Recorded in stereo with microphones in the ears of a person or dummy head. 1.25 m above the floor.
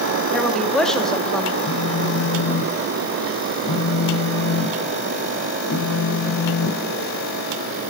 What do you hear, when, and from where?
0.3 s a woman speaking: 10° left (ahead or behind), 3 m
1.6 s a phone buzzing: 70° left (ahead or behind), 3 m